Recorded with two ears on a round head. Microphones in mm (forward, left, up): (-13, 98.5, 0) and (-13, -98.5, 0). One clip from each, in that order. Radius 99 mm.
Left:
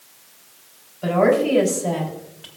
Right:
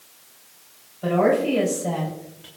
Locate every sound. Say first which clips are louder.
1.0 s a woman speaking: left 2 dB; 25° left (ahead or behind), 4 m; by 2.5 s 30° left (ahead or behind), 3 m